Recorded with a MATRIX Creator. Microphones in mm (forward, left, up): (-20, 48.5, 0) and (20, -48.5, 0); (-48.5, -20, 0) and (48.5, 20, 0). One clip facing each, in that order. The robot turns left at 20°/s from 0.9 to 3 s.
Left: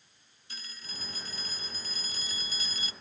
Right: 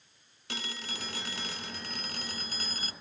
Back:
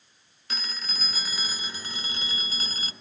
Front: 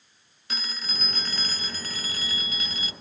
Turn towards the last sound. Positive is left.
turn(degrees=-110)